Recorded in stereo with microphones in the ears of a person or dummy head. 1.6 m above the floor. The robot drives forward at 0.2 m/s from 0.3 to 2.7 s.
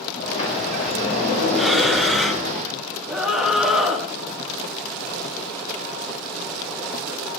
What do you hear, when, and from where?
0.2 s a sliding door: 50° left (ahead or behind), 4 m; by 2.5 s 45° left (ahead or behind), 4 m
1.6 s breathing: 5° left (ahead or behind), 1.1 m
3.1 s a scream: 10° right (ahead or behind), 1.1 m